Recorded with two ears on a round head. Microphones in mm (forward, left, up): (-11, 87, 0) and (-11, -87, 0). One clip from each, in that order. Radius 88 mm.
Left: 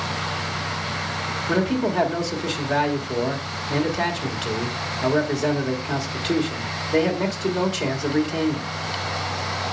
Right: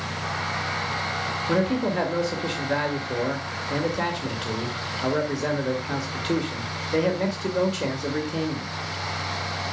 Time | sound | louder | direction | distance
1.5 | a man speaking | left 2 dB | 10° left (ahead or behind) | 1.7 m